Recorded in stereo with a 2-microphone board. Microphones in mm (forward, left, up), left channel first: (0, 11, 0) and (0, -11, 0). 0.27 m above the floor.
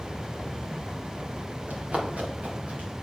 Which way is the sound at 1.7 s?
80° right.